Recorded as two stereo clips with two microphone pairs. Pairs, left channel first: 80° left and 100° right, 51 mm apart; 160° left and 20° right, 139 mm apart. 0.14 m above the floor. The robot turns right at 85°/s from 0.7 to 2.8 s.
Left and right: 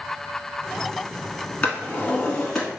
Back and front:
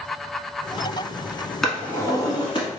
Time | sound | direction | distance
1.6 | a drawer | 75° left | 1.0 m